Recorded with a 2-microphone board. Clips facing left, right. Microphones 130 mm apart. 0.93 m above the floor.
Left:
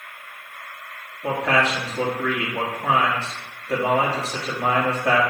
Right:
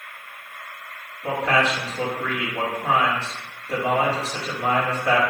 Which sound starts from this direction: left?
A man speaking, at 1.2 s.